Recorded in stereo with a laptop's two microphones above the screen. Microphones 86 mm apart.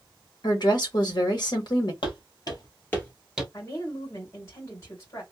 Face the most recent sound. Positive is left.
turn(degrees=35)  # may be behind; listen again after turning